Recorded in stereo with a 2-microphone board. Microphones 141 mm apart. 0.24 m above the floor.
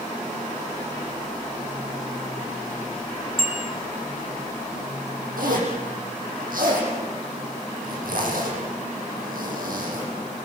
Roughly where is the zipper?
Right.